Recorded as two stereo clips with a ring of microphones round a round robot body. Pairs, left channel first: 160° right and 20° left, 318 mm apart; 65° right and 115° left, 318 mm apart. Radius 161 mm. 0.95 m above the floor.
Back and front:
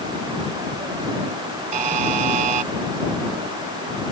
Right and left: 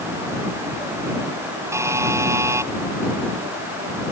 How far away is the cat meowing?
I don't hear a cat meowing.